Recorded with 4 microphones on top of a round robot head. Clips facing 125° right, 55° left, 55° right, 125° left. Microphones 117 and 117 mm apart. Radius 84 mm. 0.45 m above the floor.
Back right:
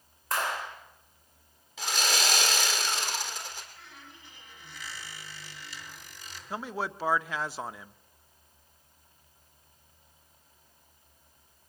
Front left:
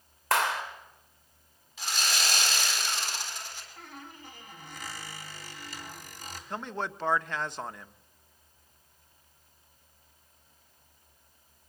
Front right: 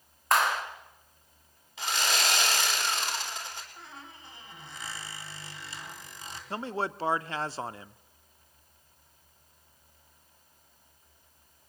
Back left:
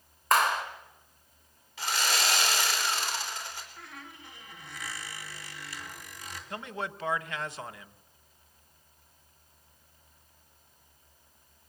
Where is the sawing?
125° right, 4 m.